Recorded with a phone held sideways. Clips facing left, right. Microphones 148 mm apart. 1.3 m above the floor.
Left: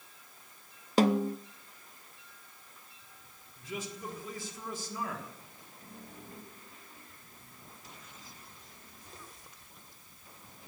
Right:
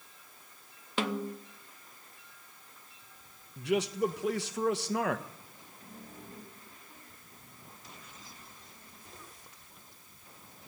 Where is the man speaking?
75° right (ahead or behind), 1.2 m.